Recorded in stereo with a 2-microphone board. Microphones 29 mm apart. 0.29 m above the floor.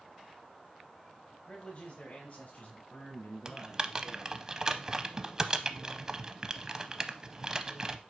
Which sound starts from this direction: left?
A man speaking, at 1.3 s.